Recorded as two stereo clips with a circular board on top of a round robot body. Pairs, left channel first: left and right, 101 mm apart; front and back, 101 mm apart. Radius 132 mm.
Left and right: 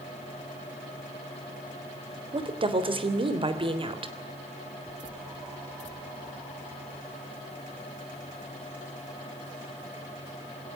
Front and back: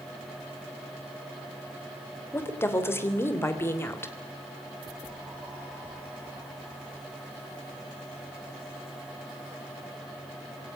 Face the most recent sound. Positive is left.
turn(degrees=-65)